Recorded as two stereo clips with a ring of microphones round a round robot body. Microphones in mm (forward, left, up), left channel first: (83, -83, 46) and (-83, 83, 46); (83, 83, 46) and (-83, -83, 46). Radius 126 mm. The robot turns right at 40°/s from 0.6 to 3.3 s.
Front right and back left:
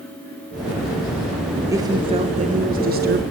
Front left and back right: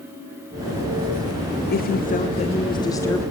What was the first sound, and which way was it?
A woman speaking, 65° left.